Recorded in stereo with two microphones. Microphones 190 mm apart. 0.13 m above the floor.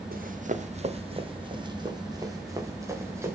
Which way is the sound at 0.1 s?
50° right (ahead or behind).